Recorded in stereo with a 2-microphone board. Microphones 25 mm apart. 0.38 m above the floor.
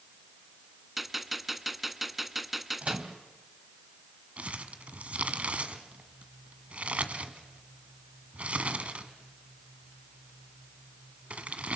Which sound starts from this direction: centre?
A gunshot, at 1.0 s.